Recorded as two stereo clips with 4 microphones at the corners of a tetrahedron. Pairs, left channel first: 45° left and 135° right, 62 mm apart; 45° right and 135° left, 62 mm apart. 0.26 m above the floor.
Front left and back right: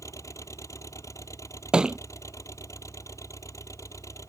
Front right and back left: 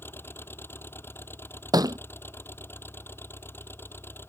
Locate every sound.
0.0 s an engine running: 10° left
1.7 s a thud: 145° left